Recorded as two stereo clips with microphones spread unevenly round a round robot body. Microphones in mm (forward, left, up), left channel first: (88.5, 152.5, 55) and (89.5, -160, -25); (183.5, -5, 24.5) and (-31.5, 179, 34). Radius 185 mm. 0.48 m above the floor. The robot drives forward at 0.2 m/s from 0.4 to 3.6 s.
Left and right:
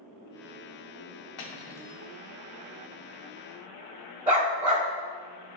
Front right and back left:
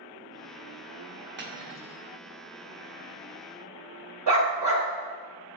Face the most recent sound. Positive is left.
turn(degrees=-170)